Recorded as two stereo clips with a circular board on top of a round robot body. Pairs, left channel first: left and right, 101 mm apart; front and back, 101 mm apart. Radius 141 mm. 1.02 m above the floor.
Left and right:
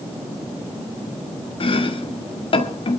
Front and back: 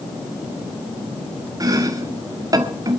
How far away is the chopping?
About 2 m.